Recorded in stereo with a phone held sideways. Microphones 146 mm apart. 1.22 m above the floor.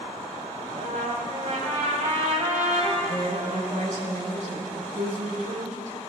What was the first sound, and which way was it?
A trumpet, 80° right.